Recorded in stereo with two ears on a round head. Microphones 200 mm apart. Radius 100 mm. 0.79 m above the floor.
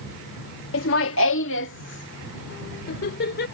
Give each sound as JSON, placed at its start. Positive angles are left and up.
{"t": 0.7, "sound": "laughter", "side_deg": 60}